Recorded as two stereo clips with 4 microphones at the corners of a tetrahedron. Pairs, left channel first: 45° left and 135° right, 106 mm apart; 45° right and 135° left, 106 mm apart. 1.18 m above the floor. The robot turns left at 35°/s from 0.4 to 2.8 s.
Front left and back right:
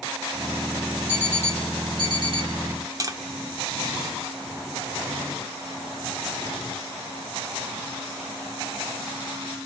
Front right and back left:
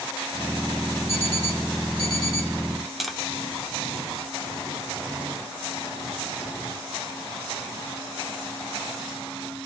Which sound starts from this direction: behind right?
Tapping, at 3.0 s.